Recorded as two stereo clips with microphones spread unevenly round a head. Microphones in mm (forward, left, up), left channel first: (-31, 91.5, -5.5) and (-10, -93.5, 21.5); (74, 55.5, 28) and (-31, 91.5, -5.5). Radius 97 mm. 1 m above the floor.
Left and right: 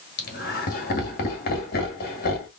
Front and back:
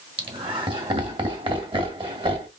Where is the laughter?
130° left, 1.9 m.